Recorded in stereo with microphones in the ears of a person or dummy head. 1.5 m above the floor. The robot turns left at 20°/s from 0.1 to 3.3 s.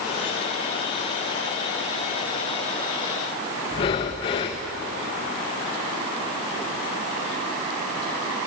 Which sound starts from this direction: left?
Breathing, at 3.7 s.